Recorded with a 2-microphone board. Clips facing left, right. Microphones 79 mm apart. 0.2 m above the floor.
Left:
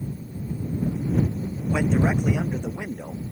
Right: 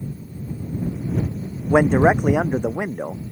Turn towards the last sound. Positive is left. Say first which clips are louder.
# right 8 dB
turn(degrees=-55)  # may be behind; listen again after turning